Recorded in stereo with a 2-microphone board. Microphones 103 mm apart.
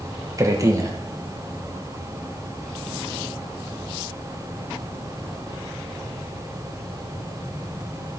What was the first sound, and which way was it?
A man speaking, 30° right (ahead or behind).